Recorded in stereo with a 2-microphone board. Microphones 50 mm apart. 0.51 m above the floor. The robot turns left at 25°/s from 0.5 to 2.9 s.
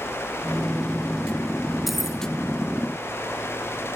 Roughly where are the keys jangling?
Centre.